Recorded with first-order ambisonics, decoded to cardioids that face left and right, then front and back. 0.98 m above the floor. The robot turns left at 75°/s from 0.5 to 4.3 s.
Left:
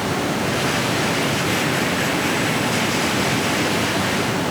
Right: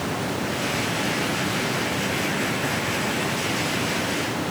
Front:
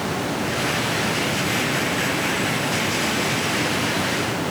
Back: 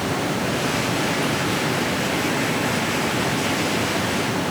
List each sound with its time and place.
Only background noise.